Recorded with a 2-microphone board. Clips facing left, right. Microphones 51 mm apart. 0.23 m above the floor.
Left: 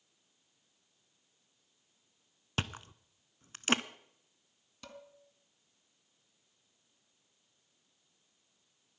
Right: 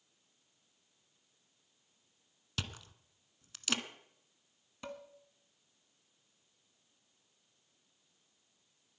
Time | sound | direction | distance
2.6 | chewing | 40° left (ahead or behind) | 0.6 m
4.8 | dishes clattering | 20° right (ahead or behind) | 1.5 m